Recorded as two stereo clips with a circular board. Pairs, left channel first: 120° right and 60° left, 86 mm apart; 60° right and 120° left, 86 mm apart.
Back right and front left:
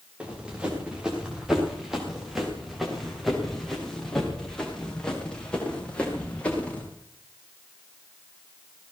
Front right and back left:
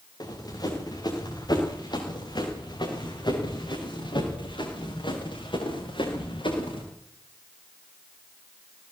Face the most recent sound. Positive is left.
turn(degrees=-45)